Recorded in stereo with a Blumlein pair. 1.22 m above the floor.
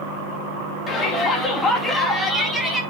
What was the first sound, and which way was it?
A shout, 20° left.